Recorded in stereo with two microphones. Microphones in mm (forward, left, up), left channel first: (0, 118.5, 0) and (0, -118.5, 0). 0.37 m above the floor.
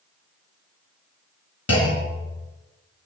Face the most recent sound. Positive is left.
turn(degrees=80)